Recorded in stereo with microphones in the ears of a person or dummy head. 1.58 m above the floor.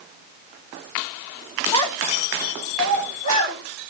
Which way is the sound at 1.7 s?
30° left (ahead or behind).